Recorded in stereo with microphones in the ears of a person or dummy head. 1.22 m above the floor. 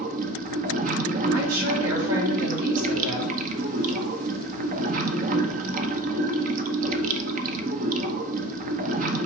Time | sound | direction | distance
0.0 | running water | 45° right (ahead or behind) | 0.8 m
1.3 | a woman speaking | 80° right | 3 m